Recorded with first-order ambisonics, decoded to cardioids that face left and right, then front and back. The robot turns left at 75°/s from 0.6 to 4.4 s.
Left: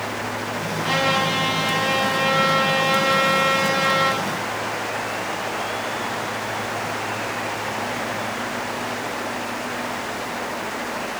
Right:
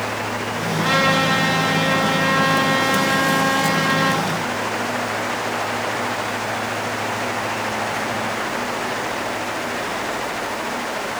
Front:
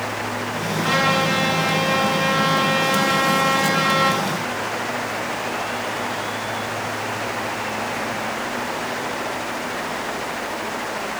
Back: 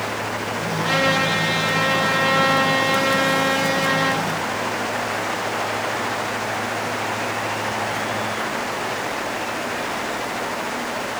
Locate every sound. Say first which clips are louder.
0.8 s a trumpet: right 3 dB, even; 70° right, 1.9 m; by 4.2 s 35° left, 1.9 m